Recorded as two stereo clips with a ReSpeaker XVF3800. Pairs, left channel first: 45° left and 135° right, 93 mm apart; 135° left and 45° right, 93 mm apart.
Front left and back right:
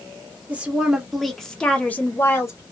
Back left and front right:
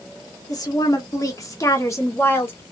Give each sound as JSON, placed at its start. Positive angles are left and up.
{"t": 0.5, "sound": "a woman speaking", "azimuth_deg": 155, "distance_m": 1.3}